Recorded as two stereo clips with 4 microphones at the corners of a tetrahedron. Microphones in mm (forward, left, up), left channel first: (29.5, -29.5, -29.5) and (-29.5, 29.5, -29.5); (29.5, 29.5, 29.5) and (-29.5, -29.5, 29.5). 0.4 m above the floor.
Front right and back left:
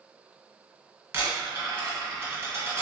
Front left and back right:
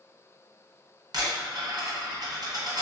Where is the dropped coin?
165° right, 1.5 m.